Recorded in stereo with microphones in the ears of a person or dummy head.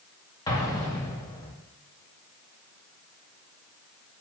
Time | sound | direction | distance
0.5 | an explosion | 20° left (ahead or behind) | 1.7 m